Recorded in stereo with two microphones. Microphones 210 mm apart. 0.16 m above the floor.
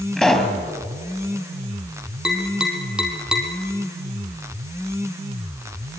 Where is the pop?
5° left (ahead or behind), 2.5 m.